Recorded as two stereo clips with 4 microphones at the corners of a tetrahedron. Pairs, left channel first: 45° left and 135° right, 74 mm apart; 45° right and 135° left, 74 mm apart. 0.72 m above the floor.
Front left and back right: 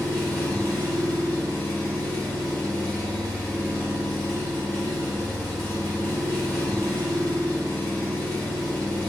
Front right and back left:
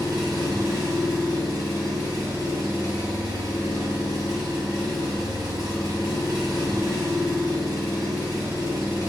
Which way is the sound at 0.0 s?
120° left.